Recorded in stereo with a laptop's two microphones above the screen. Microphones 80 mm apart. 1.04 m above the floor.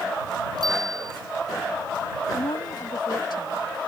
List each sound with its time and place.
0.6 s a bicycle bell: 60° right (ahead or behind)
2.3 s a woman speaking: 60° left (ahead or behind)